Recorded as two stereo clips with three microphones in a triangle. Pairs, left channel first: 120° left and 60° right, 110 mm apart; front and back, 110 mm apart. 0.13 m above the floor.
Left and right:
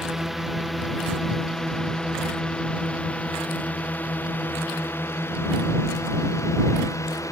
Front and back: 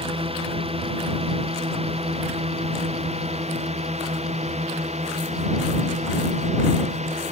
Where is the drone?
150° right; by 7.3 s straight behind.